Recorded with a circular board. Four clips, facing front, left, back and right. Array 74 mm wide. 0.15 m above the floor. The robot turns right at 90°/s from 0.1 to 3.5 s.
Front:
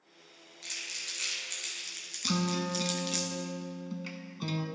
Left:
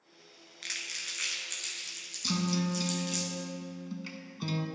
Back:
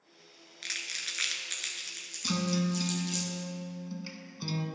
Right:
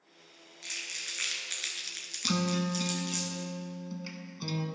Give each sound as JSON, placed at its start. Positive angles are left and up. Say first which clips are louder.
{"t": 0.6, "sound": "crumpling", "louder": "left 1 dB, back 4 dB", "azimuth_deg": 145, "distance_m": 1.1}
{"t": 2.2, "sound": "a guitar", "louder": "right 1 dB, back 1 dB", "azimuth_deg": -80, "distance_m": 0.7}